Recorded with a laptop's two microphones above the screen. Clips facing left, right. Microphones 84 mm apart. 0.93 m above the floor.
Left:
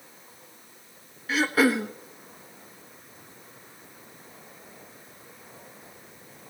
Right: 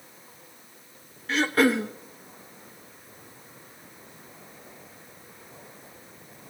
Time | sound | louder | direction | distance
1.3 | throat clearing | even | 5° left (ahead or behind) | 0.9 m